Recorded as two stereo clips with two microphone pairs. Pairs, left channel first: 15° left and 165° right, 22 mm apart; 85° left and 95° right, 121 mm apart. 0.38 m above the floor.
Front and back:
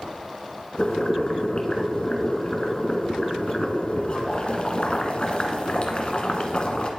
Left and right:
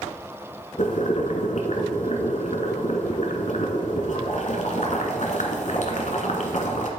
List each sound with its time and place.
0.8 s boiling: 60° left, 1.4 m